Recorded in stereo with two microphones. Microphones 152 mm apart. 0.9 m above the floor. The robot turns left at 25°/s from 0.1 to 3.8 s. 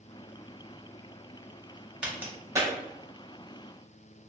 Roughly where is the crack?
Centre.